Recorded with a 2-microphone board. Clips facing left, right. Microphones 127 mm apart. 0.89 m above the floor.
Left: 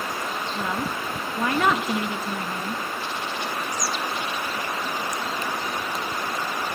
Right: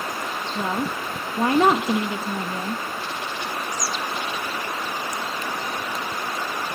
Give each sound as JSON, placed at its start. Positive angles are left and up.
{"t": 0.6, "sound": "a woman speaking", "side_deg": -30, "distance_m": 1.0}